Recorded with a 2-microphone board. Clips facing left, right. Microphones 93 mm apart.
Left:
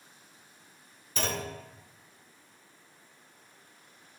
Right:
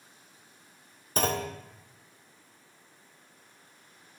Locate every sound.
1.2 s a clunk: 45° right (ahead or behind), 1.1 m